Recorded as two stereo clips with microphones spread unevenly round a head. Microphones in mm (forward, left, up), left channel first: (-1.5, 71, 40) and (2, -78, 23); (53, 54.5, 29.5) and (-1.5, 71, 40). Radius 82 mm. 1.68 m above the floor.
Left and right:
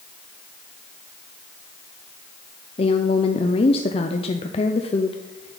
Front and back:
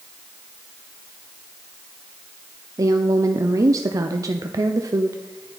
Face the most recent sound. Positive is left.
turn(degrees=145)